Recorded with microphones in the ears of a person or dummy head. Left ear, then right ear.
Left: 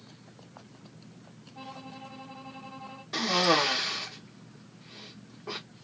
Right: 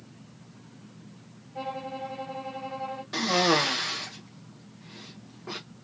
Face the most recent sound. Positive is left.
turn(degrees=5)  # may be behind; listen again after turning